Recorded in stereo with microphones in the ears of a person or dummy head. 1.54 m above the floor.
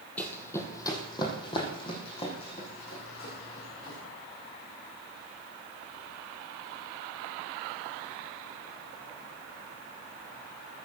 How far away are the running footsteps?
About 3 m.